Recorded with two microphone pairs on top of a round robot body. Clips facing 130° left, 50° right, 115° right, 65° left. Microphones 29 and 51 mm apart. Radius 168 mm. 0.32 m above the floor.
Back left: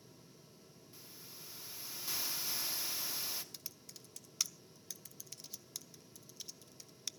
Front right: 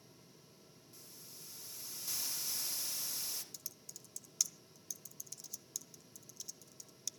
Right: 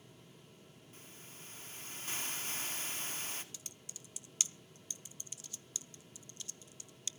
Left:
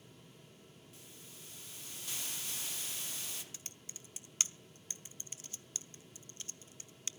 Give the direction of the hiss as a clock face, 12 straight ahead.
6 o'clock.